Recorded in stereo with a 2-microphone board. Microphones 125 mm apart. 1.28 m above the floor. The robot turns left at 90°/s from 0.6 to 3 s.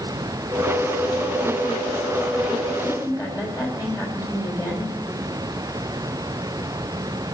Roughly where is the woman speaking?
Left.